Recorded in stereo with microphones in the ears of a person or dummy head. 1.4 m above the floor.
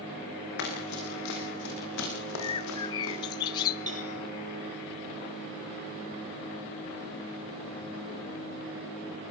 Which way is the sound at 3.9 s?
30° right (ahead or behind).